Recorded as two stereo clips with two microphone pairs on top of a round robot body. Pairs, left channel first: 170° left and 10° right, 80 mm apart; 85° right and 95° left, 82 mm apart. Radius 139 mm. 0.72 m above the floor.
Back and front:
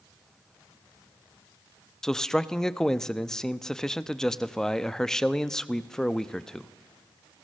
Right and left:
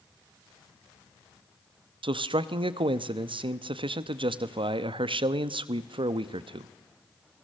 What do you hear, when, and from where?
2.0 s a man speaking: 90° left, 0.9 m